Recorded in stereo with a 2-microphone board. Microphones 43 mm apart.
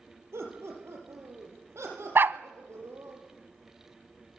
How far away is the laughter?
About 9 m.